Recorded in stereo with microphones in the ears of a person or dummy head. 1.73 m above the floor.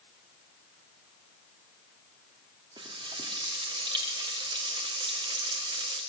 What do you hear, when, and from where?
2.8 s frying: 25° right (ahead or behind), 3 m